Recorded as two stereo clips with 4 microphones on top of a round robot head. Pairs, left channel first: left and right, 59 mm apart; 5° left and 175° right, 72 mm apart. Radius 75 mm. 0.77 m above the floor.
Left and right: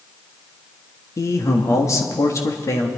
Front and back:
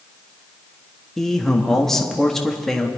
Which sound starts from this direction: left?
A man speaking, at 1.2 s.